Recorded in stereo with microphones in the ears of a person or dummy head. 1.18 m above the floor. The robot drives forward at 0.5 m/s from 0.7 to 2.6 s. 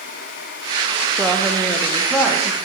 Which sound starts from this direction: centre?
A woman speaking, at 1.2 s.